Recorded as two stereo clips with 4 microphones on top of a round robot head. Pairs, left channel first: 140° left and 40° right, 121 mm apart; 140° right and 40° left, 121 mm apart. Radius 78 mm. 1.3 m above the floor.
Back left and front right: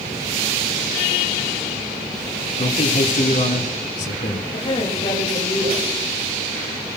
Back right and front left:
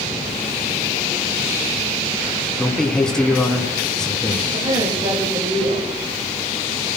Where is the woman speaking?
90° left, 7.5 m.